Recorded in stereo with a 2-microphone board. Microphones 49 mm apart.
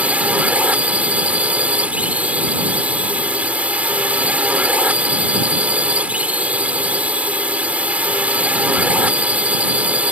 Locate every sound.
0.0 s a drone: 30° right (ahead or behind)